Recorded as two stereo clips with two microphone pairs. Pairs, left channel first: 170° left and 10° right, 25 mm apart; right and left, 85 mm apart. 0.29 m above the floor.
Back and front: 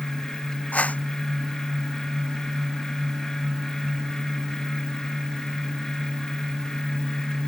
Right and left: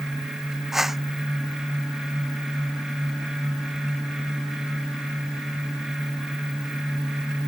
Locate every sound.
0.7 s a whoosh: 175° left